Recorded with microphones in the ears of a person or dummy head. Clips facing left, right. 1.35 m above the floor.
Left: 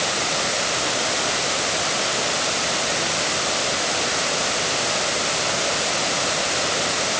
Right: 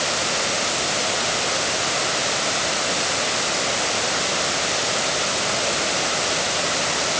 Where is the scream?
I don't hear a scream.